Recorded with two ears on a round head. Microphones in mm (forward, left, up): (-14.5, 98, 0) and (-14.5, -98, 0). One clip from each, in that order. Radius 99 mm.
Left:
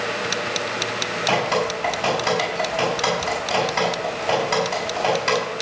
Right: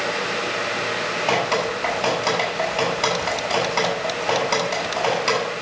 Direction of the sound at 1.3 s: 15° right (ahead or behind).